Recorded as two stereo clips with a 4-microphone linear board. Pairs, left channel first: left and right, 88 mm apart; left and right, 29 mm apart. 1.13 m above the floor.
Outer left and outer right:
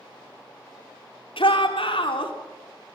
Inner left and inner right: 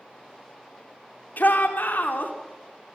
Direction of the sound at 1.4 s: 75° left (ahead or behind).